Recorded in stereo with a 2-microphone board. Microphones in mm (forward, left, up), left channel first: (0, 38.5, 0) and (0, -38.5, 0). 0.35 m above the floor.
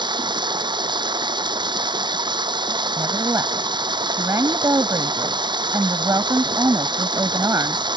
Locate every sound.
0.0 s running water: 80° right
3.0 s a woman speaking: 50° right (ahead or behind)